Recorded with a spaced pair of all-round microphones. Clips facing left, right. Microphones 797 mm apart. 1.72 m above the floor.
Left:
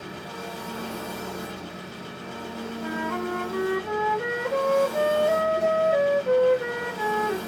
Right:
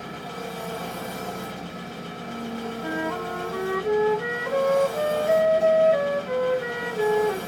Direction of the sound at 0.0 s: 25° right (ahead or behind).